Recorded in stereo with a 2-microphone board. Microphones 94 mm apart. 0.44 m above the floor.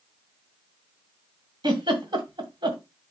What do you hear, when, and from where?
1.6 s a giggle: 55° right (ahead or behind), 2 m